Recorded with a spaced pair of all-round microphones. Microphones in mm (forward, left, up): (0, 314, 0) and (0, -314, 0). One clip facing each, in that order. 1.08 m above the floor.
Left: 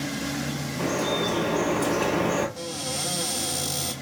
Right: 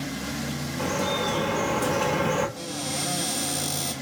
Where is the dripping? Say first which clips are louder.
Left 2 dB; 10° right (ahead or behind), 1.2 m.